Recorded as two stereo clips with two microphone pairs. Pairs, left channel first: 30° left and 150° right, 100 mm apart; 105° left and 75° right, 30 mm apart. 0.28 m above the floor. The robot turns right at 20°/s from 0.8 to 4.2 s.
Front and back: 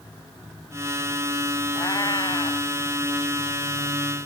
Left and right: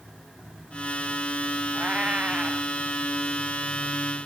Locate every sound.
1.8 s a cat meowing: 25° right; by 2.7 s 10° right